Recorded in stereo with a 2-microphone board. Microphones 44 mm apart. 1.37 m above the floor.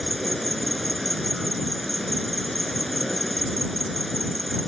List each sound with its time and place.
0.0 s an insect: 5° left (ahead or behind)